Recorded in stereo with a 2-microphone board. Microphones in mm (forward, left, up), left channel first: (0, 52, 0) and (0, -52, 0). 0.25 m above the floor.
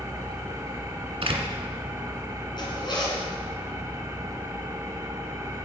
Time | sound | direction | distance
0.0 | an engine running | 30° right (ahead or behind) | 1.8 m
1.2 | a door slam | 70° right (ahead or behind) | 1.5 m
2.6 | a zipper | 45° left (ahead or behind) | 3 m